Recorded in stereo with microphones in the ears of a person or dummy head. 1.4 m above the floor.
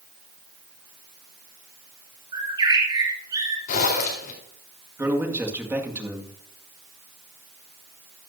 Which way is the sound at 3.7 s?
50° left (ahead or behind).